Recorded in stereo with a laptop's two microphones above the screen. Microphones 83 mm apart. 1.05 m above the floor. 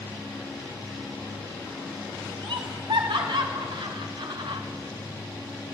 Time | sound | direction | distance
2.4 | laughter | 80° right | 4 m